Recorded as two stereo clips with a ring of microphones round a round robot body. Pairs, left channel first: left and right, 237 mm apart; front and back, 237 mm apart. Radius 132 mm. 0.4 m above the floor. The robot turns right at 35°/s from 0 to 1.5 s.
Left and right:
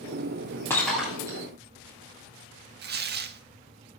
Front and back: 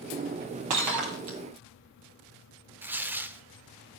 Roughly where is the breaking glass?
Behind.